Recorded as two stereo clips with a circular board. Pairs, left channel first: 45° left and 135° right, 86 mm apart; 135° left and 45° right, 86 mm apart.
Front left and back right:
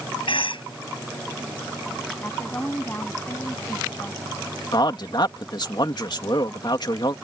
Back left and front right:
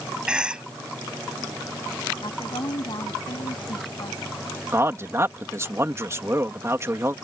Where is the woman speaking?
110° left.